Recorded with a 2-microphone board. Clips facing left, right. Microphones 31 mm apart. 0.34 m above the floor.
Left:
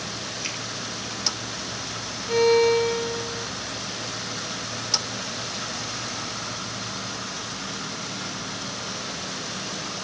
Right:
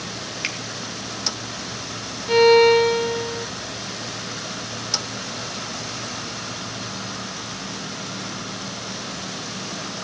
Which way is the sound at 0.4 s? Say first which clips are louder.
Right 6 dB; 55° right (ahead or behind).